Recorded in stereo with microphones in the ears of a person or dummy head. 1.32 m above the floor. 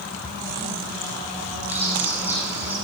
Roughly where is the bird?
Centre.